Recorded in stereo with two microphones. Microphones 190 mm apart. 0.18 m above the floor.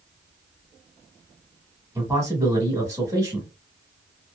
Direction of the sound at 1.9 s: 15° right (ahead or behind).